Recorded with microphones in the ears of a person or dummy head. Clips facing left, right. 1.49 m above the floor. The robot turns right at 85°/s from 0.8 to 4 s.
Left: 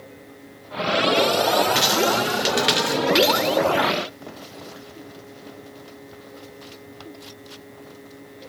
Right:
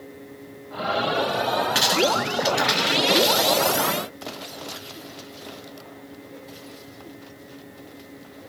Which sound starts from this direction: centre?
A dropped coin, at 1.8 s.